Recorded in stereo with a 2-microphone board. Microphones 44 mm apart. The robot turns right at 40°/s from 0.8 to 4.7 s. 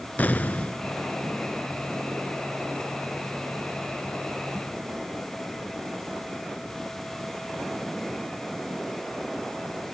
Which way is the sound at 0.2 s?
40° left (ahead or behind).